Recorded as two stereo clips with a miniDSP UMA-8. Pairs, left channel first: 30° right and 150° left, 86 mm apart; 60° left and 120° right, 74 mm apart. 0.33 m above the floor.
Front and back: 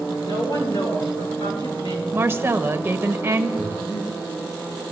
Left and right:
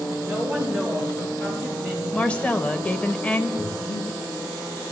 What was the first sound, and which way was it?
A woman speaking, 50° right.